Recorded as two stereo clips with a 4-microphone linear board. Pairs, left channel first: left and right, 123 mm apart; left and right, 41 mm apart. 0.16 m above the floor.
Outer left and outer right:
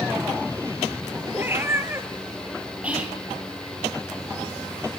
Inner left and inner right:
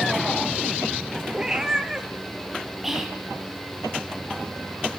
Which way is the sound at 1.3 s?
15° right (ahead or behind).